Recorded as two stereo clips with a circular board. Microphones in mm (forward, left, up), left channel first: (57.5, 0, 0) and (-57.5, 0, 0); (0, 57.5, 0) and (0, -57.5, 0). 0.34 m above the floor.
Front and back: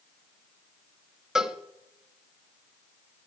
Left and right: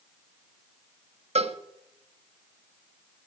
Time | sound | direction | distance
1.4 | a cowbell | 95° right | 0.7 m